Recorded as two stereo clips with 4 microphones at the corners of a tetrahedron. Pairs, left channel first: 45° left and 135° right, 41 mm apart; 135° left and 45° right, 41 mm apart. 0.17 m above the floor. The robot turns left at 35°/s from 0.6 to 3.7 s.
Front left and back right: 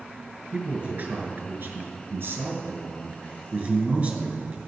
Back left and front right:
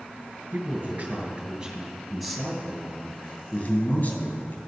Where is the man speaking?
80° right, 3 m; by 4.6 s 170° left, 3 m.